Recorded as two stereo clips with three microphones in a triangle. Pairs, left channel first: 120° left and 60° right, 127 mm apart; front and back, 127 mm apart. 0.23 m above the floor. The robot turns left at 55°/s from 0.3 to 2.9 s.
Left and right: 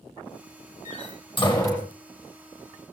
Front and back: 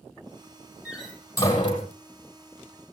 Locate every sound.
0.8 s a door slam: 100° left, 5.5 m; by 1.9 s 40° left, 5.5 m